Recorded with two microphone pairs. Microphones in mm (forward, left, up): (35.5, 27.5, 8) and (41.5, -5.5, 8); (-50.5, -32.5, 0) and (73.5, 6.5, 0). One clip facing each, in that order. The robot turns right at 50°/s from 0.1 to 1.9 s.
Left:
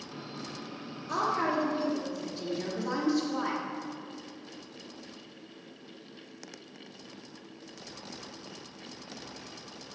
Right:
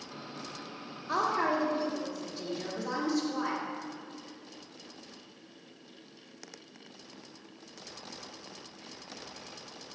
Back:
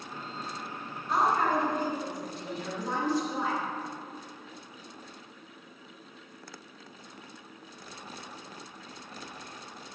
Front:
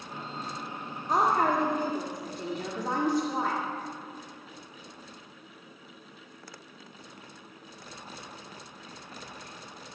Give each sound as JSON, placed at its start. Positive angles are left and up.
{"t": 1.1, "sound": "a woman speaking", "azimuth_deg": -20, "distance_m": 1.7}